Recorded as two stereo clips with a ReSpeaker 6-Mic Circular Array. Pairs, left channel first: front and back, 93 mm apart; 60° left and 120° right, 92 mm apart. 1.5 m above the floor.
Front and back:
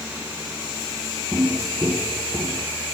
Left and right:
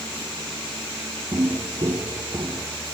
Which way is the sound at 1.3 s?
110° right.